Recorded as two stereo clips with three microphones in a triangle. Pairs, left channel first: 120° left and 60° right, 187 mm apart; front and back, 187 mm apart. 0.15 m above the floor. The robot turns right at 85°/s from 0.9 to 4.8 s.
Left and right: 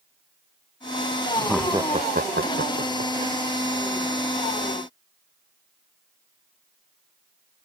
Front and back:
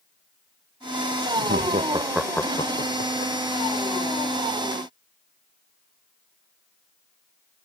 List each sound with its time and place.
1.4 s laughter: 165° right; by 3.3 s straight ahead